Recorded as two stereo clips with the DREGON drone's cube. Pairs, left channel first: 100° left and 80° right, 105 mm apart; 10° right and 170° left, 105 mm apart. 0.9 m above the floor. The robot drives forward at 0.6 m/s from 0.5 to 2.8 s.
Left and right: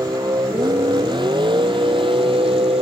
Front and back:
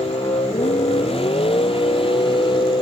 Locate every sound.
0.0 s a vehicle: 30° right; by 2.8 s 50° right